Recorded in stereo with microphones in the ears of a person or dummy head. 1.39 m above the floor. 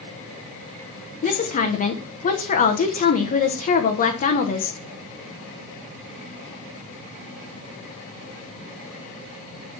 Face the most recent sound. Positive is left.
turn(degrees=40)  # may be behind; listen again after turning